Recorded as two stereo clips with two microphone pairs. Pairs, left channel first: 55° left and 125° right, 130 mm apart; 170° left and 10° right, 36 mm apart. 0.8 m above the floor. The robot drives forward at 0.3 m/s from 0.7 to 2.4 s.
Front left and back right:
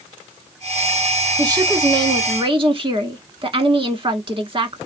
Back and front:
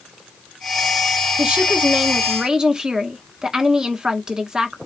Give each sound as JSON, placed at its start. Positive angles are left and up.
{"t": 1.4, "sound": "a woman speaking", "azimuth_deg": -65, "distance_m": 1.2}